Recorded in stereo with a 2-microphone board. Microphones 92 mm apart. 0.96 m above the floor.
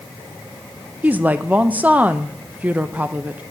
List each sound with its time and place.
1.0 s a woman speaking: 15° right (ahead or behind), 0.5 m